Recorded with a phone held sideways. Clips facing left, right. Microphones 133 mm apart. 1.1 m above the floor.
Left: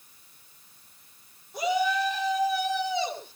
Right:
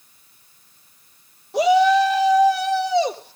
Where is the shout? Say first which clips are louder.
Right 11 dB; 80° right, 1.4 m; by 3.4 s 70° right (ahead or behind), 2 m.